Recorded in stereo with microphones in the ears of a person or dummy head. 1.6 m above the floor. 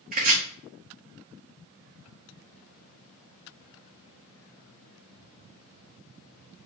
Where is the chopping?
45° right (ahead or behind), 1.9 m.